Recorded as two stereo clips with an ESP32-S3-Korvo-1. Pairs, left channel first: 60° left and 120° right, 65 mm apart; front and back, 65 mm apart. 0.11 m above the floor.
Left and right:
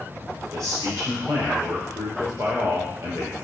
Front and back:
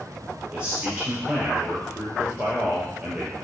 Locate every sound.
0.5 s a man speaking: 110° right, 2.5 m